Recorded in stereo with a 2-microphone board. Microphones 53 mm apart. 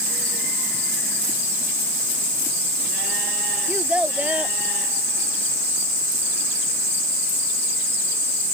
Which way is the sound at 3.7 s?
25° right (ahead or behind).